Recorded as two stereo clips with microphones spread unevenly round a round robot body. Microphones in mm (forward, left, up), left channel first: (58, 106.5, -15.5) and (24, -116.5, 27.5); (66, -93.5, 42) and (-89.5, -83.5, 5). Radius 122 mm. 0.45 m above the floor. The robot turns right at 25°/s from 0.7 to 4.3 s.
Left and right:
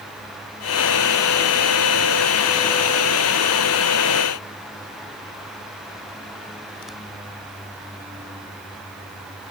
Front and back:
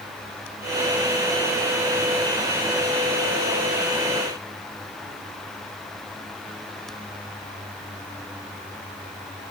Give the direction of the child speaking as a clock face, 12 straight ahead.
No child speaking in this recording.